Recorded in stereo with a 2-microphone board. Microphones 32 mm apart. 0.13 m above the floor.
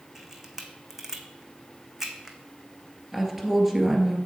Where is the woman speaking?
10° right (ahead or behind), 2 m.